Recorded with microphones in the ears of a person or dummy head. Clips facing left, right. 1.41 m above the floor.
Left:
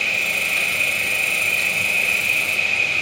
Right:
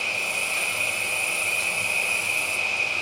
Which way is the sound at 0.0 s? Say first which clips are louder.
Left 3 dB; 20° left (ahead or behind).